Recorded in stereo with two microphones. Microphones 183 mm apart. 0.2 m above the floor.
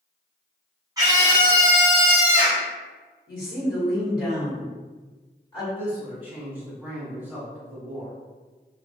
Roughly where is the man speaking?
Centre.